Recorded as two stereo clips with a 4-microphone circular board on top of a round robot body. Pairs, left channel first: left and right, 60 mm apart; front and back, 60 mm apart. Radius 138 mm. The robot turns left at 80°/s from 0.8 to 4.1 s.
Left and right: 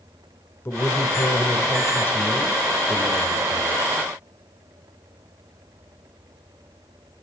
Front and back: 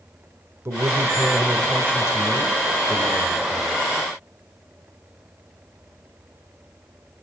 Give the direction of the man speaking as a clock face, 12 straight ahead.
7 o'clock.